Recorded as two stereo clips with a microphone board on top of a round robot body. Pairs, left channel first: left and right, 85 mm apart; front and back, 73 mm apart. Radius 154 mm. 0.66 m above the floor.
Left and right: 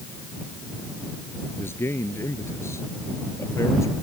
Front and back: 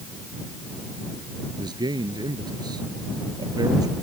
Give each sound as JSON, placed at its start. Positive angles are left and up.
{"t": 1.6, "sound": "a man speaking", "azimuth_deg": 150}